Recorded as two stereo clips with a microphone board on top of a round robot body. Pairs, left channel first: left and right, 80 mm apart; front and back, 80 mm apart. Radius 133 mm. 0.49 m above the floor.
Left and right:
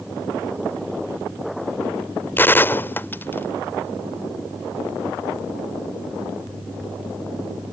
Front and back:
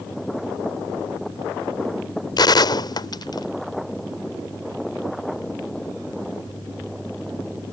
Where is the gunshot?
25° left.